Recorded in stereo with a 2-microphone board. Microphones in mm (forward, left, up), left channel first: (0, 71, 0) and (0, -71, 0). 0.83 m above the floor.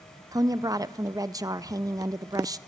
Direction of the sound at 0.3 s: 30° right (ahead or behind).